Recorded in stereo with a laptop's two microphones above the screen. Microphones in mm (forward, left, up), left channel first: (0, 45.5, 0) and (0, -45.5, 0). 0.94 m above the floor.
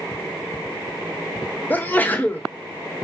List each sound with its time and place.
1.7 s a sneeze: 20° left (ahead or behind), 0.6 m